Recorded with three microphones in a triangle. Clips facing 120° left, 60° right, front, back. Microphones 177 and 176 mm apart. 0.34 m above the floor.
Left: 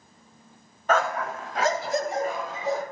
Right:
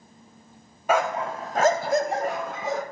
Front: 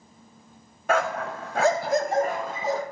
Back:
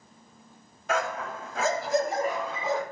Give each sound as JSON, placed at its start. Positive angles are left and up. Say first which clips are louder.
{"t": 0.9, "sound": "a dog barking", "louder": "right 1 dB, front 5 dB", "azimuth_deg": 20, "distance_m": 0.7}